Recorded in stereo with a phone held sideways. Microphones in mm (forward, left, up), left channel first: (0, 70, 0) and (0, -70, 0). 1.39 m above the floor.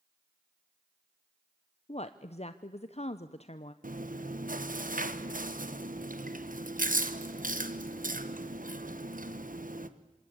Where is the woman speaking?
50° left (ahead or behind), 0.7 m.